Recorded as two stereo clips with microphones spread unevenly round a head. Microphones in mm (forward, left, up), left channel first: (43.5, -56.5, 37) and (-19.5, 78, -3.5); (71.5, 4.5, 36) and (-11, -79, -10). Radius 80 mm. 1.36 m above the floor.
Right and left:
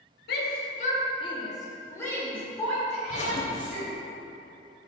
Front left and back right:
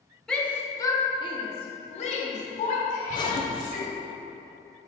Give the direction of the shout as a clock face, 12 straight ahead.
1 o'clock.